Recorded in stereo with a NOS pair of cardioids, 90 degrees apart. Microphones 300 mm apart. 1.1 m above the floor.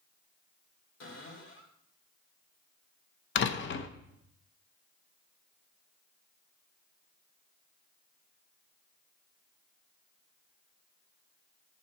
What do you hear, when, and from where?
1.0 s a cupboard door: 60° left, 3 m
3.4 s a door slam: 40° left, 0.7 m